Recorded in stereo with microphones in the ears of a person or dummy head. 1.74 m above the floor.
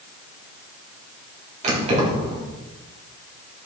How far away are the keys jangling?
About 3.5 m.